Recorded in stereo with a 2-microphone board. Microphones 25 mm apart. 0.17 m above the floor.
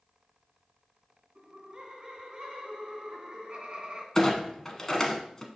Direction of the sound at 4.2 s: 20° left (ahead or behind).